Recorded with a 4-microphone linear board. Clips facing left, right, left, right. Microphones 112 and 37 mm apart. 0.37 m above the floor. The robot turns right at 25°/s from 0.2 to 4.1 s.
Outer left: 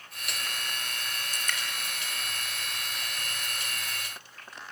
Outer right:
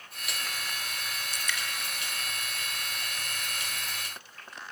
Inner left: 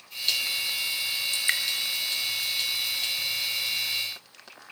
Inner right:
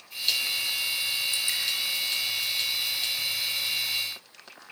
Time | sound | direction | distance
1.3 | dripping | 50° left (ahead or behind) | 2.5 m